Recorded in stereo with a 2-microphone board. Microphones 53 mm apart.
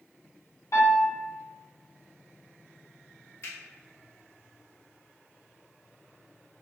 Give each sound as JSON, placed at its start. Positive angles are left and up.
{"t": 0.7, "sound": "a piano", "side_deg": 70, "distance_m": 1.8}
{"t": 3.4, "sound": "a finger snap", "side_deg": 55, "distance_m": 0.9}